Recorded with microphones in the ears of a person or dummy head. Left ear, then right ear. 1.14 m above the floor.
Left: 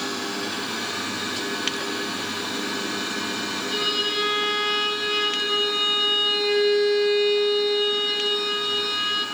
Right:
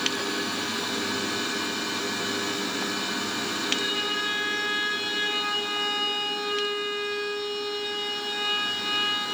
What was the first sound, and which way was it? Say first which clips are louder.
A violin: left 4 dB; 60° left (ahead or behind).